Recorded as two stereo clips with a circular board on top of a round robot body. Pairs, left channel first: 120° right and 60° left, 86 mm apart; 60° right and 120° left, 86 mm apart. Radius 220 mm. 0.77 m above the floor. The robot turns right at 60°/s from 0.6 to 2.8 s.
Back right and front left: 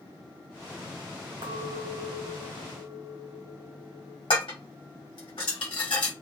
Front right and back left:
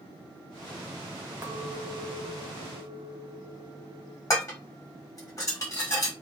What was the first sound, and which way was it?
A clink, 55° left.